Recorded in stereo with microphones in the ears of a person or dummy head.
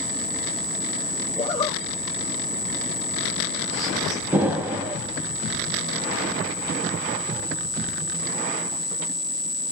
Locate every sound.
1.4 s a zipper: 35° left (ahead or behind), 0.7 m
4.3 s an explosion: 10° right (ahead or behind), 0.5 m